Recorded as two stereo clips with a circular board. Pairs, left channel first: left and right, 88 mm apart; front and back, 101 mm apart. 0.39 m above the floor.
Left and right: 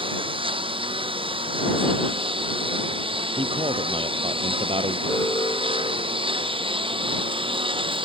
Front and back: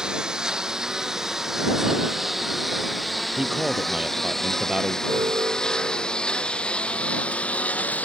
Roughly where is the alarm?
Behind left.